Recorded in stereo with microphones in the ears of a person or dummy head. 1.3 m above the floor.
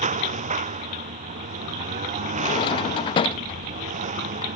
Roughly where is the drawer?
Left.